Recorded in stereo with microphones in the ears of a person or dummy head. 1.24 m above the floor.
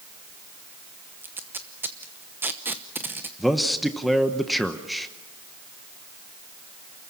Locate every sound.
1.2 s tape being pulled: 5° right (ahead or behind), 0.8 m
3.4 s a man speaking: centre (ahead or behind), 0.9 m